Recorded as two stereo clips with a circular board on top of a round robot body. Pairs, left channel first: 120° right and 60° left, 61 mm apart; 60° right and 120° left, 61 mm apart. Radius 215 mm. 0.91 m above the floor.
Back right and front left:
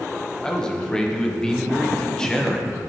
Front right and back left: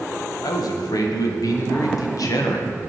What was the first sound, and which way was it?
A man speaking, 45° right.